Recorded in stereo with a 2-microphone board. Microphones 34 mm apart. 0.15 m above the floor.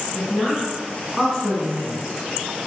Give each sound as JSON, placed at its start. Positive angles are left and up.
{"t": 0.1, "sound": "a woman speaking", "side_deg": 30, "distance_m": 1.6}